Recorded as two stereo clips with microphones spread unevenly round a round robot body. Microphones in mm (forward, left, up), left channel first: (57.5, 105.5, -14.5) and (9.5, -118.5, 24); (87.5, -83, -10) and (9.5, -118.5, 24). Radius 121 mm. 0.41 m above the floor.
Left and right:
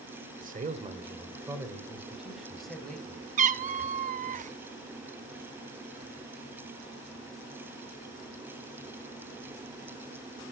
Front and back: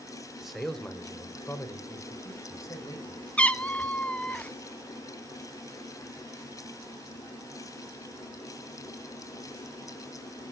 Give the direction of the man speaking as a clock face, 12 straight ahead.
2 o'clock.